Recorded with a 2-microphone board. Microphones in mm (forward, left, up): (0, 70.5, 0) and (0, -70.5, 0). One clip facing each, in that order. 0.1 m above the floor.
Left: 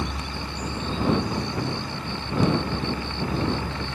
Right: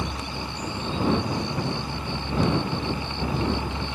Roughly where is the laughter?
No laughter in this recording.